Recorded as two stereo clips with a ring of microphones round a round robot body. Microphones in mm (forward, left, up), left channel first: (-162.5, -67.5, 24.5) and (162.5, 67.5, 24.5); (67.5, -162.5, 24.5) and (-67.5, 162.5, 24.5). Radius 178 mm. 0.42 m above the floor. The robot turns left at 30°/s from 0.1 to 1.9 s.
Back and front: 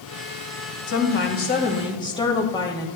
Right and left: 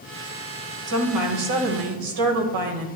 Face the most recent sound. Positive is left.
turn(degrees=125)